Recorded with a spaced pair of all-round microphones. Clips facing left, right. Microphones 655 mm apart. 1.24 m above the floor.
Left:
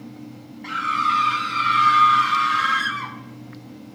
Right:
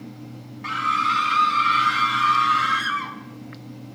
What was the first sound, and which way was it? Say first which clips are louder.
A scream: even; 35° right (ahead or behind).